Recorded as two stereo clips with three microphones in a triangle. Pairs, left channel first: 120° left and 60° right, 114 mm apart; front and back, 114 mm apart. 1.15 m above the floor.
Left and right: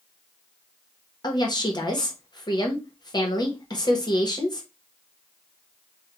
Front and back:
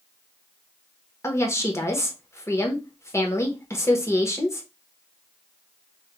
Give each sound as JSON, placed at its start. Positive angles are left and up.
{"t": 1.2, "sound": "a woman speaking", "azimuth_deg": 65, "distance_m": 0.7}